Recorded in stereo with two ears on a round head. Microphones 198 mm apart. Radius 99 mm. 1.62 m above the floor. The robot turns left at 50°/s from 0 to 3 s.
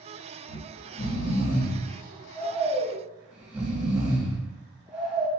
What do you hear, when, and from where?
0.5 s snoring: 35° left (ahead or behind), 1.2 m; by 5.3 s 5° right (ahead or behind), 1.2 m